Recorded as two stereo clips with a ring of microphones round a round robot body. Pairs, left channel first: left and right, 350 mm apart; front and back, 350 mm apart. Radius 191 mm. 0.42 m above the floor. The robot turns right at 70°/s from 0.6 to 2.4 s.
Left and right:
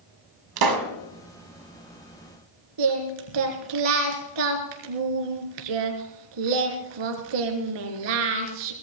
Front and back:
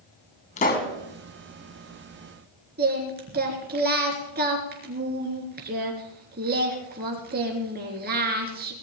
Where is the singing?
115° right, 3.5 m.